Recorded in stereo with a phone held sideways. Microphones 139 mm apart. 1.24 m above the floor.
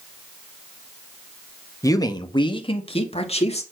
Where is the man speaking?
25° left (ahead or behind), 1.3 m; by 3.6 s 50° left (ahead or behind), 2.5 m.